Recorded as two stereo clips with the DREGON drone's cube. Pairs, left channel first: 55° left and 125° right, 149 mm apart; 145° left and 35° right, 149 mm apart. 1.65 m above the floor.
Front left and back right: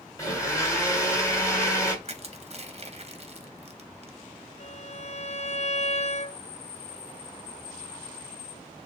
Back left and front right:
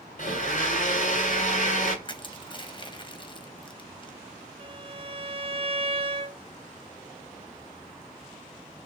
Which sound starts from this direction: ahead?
A violin, at 4.6 s.